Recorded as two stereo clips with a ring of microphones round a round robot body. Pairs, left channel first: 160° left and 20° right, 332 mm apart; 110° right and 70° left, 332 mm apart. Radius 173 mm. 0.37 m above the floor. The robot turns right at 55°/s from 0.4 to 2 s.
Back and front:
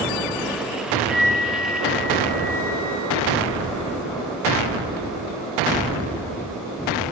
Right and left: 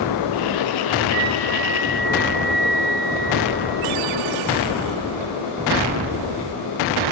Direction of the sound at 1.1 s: 55° right.